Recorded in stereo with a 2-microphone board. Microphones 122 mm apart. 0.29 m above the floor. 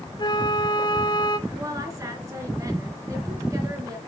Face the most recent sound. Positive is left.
turn(degrees=-25)  # may be behind; listen again after turning